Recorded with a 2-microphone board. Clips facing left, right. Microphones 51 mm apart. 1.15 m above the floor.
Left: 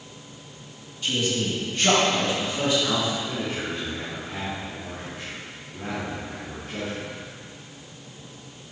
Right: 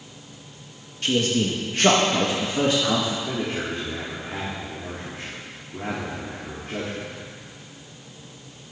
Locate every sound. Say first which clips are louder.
1.0 s a man speaking: right 4 dB; 65° right (ahead or behind), 1.9 m; by 3.2 s 45° right (ahead or behind), 2 m
3.3 s a man speaking: right 2 dB; 55° right (ahead or behind), 3 m